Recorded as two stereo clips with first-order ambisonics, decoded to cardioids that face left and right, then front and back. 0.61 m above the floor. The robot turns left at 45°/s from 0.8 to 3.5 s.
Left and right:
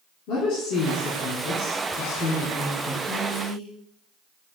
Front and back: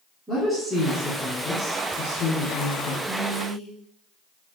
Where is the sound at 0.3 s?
100° left, 1.6 m; by 2.9 s 5° left, 1.6 m.